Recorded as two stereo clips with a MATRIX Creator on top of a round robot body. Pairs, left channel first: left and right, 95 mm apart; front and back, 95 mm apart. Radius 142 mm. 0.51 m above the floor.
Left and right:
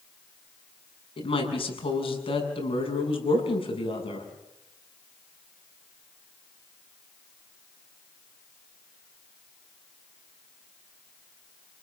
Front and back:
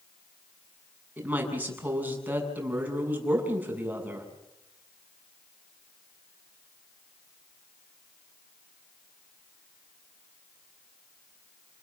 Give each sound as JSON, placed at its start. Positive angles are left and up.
{"t": 1.2, "sound": "a woman speaking", "azimuth_deg": 105, "distance_m": 7.0}